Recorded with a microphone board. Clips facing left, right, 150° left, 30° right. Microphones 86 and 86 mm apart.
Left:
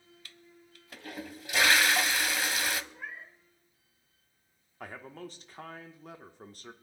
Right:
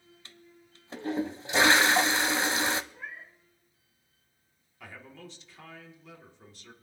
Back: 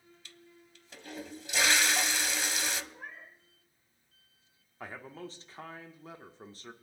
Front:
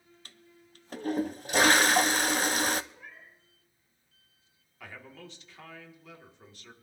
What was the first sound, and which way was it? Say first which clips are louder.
A toilet flushing: right 1 dB, even; 40° right.